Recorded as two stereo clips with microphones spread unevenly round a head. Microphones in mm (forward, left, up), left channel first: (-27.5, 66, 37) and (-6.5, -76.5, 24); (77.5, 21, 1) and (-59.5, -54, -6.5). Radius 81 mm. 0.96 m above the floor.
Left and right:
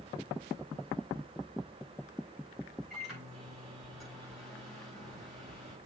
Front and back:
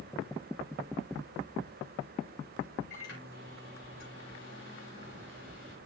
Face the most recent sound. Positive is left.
turn(degrees=10)